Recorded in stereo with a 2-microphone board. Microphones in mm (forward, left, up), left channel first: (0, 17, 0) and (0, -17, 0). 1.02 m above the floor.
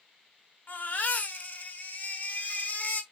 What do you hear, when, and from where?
0.7 s a baby crying: 55° left (ahead or behind), 1.2 m